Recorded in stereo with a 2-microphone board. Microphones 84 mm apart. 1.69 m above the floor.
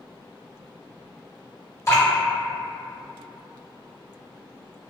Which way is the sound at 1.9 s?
35° left (ahead or behind).